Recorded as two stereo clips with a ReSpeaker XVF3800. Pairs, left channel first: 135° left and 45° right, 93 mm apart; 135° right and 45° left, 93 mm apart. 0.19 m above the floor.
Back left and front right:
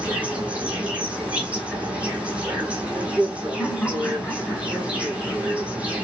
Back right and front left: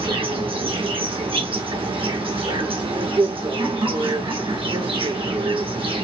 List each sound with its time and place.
0.0 s an insect: 30° left, 1.6 m
3.6 s laughter: 55° left, 2.5 m